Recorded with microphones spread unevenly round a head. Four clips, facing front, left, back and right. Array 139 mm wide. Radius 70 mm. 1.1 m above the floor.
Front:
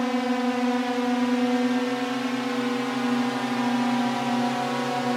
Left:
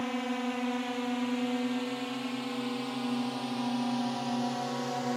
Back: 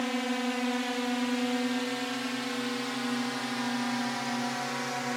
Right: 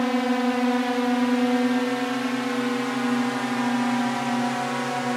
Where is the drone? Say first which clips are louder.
Right 10 dB, front 7 dB; 70° right; by 5.2 s 40° right.